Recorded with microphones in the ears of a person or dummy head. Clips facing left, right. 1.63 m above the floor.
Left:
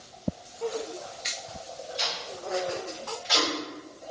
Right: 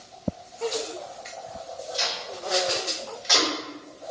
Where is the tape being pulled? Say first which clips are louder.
Right 3 dB; 70° right (ahead or behind), 2 m.